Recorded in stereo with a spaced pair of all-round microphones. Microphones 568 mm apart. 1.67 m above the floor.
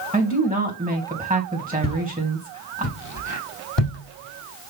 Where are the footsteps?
20° left (ahead or behind), 2.5 m; by 4.7 s 55° left (ahead or behind), 4.5 m.